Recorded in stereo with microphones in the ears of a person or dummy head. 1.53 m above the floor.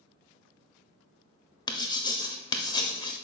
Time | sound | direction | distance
1.7 | writing | 20° left (ahead or behind) | 0.5 m